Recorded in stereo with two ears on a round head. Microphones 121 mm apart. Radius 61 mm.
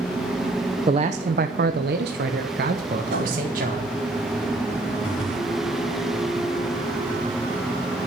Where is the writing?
80° right, 4.5 m.